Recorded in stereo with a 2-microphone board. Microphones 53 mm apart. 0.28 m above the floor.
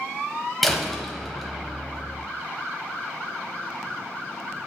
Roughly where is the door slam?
Centre.